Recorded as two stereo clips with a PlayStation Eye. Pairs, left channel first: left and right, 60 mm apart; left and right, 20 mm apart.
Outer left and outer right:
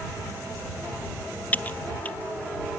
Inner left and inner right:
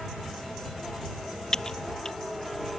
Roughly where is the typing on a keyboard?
Left.